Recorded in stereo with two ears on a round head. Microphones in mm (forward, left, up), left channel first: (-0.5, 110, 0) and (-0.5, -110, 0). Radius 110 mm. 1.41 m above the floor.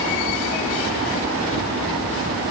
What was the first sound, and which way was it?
Only background noise.